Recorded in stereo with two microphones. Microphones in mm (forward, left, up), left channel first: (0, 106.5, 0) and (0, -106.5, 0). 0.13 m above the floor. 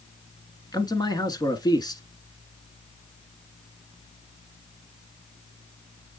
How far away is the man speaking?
About 1.2 m.